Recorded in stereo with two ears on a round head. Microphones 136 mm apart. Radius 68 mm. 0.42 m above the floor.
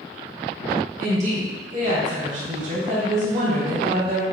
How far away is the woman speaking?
About 1.5 m.